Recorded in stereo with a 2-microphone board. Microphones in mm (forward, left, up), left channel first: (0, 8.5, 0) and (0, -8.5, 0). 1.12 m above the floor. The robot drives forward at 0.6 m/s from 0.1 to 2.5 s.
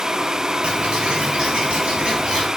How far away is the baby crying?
I don't hear a baby crying.